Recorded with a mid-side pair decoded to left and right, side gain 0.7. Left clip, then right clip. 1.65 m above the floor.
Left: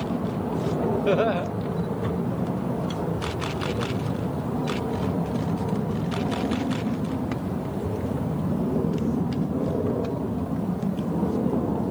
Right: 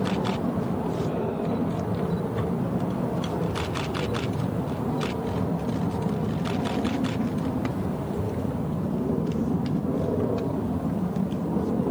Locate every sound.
1.1 s laughter: 65° left, 2 m